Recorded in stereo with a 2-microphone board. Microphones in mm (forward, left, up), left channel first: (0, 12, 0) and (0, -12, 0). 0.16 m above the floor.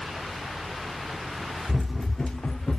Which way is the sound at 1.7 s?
20° right (ahead or behind).